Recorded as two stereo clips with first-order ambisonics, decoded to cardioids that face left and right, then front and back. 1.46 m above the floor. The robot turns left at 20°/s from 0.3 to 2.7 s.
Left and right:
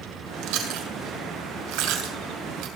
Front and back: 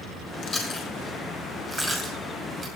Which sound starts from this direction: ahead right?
Chewing, at 0.4 s.